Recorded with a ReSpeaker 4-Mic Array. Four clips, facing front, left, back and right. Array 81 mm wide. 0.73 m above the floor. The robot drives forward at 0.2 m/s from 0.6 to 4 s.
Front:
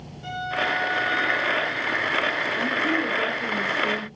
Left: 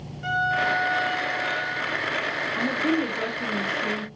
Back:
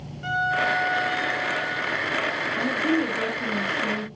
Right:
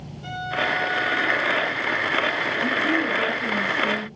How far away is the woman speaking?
About 1.1 m.